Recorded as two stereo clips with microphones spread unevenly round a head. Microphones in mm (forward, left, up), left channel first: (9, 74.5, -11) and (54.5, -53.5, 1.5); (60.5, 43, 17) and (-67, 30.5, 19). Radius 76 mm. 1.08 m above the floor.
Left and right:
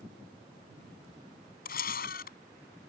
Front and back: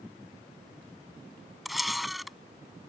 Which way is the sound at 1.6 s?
95° left.